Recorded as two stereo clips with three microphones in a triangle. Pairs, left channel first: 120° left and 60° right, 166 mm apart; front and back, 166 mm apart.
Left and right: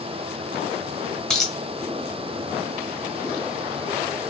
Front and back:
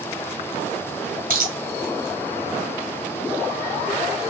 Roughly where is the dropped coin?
Behind right.